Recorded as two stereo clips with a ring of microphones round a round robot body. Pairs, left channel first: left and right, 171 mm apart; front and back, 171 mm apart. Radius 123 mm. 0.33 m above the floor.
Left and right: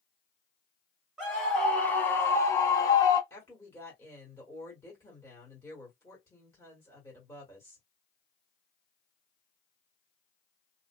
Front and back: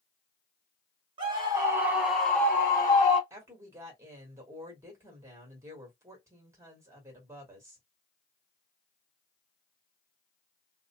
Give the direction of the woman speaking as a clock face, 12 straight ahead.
8 o'clock.